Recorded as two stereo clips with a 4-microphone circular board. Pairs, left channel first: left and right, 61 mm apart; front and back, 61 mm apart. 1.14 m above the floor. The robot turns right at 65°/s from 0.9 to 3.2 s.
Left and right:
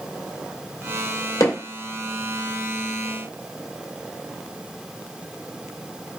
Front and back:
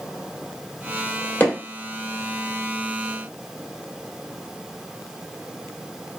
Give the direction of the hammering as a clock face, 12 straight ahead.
10 o'clock.